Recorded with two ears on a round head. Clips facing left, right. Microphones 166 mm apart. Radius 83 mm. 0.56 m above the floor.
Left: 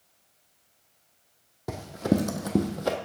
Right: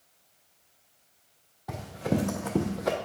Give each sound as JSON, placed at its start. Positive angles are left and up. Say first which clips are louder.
{"t": 1.7, "sound": "running footsteps", "louder": "left 4 dB", "side_deg": 60, "distance_m": 1.2}